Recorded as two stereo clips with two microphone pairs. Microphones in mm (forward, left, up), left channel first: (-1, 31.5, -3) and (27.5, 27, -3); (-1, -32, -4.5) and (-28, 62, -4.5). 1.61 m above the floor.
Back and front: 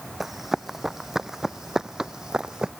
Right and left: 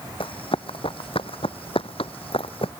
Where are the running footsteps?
90° right; by 2.7 s 70° right.